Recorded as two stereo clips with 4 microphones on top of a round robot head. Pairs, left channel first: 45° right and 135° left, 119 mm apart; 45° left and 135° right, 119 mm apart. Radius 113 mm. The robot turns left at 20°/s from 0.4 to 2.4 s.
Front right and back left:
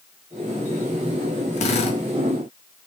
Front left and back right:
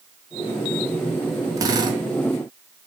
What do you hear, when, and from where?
1.6 s a drill: 75° right, 3 m; by 2.0 s 85° right, 3 m